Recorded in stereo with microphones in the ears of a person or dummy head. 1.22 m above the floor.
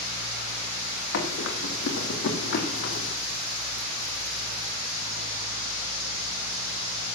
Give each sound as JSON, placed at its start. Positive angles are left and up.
{"t": 1.1, "sound": "running footsteps", "side_deg": 70, "distance_m": 4.0}